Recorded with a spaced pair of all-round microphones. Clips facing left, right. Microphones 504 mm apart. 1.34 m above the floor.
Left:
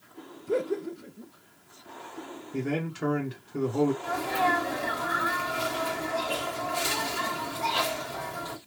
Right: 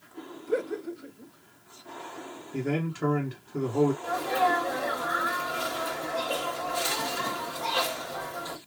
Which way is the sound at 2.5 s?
Centre (ahead or behind).